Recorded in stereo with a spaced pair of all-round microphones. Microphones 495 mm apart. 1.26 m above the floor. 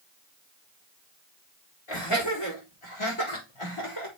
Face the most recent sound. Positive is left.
turn(degrees=75)  # may be behind; listen again after turning